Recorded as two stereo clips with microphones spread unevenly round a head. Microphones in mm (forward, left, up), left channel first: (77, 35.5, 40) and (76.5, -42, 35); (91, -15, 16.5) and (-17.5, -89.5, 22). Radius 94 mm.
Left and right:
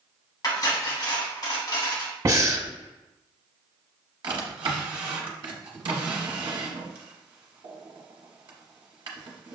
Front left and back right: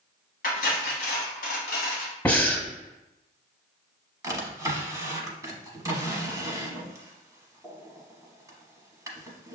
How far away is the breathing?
About 0.9 m.